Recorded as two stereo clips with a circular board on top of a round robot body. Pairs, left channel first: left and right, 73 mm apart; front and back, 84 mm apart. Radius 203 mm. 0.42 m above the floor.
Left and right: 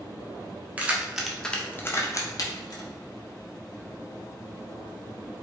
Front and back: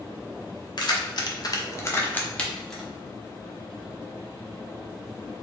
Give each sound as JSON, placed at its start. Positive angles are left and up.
{"t": 0.8, "sound": "keys jangling", "azimuth_deg": -20, "distance_m": 0.8}